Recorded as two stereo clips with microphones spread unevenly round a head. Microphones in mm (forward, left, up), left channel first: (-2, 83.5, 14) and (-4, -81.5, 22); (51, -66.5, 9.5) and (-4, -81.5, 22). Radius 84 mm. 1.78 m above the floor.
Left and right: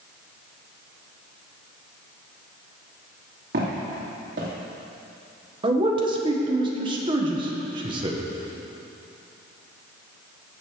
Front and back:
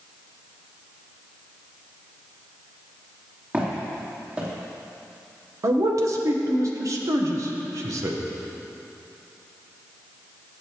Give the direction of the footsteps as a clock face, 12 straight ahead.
4 o'clock.